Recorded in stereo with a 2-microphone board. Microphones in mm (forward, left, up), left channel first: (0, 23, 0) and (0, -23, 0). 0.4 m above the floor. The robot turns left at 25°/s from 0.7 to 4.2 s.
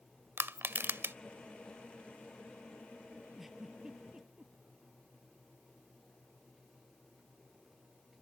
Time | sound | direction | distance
0.4 | crushing | 55° right (ahead or behind) | ?
3.4 | a giggle | 5° right (ahead or behind) | ?